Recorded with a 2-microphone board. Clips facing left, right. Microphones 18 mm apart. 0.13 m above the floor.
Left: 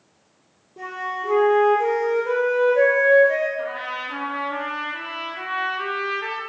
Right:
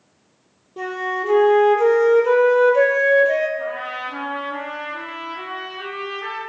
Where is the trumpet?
50° left (ahead or behind), 1.9 m.